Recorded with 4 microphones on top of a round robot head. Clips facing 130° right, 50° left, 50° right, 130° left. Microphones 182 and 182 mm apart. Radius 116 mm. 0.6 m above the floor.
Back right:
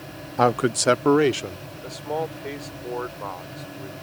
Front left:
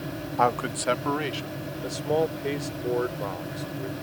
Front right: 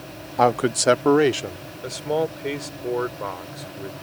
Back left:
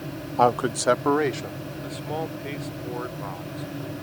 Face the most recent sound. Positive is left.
turn(degrees=-15)